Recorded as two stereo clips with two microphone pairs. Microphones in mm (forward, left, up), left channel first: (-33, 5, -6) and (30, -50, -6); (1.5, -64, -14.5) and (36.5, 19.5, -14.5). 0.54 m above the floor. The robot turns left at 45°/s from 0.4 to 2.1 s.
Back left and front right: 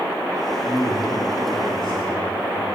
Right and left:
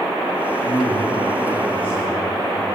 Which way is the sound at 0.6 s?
135° right.